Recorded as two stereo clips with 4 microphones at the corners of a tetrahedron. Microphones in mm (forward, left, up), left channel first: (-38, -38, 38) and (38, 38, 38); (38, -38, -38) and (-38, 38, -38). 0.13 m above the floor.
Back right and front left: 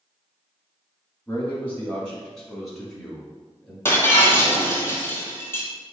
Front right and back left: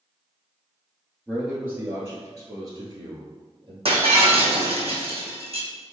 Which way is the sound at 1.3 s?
165° right.